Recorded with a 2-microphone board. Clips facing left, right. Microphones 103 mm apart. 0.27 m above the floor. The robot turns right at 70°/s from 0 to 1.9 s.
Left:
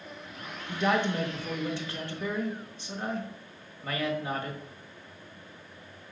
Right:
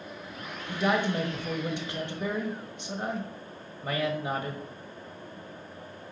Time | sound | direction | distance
0.7 | a man speaking | 5° right (ahead or behind) | 1.2 m